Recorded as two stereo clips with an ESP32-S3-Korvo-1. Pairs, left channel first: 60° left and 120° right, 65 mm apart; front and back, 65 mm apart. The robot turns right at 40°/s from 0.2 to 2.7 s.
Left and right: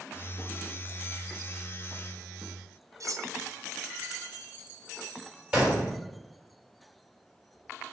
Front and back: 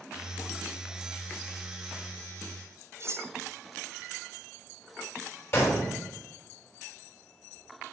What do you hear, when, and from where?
3.0 s cutlery clinking: 140° right, 0.6 m
5.5 s a gunshot: 40° right, 3 m